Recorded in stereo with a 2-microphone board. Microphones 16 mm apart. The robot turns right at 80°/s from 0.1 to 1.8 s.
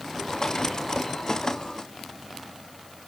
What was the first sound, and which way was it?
Only background noise.